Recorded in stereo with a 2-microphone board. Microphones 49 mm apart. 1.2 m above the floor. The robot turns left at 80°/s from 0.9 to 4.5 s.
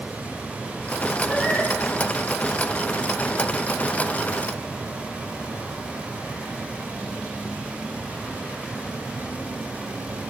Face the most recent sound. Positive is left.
turn(degrees=-70)